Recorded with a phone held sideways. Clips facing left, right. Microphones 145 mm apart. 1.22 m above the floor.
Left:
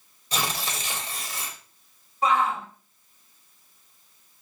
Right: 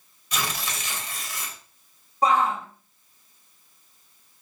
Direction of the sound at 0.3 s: 30° left (ahead or behind).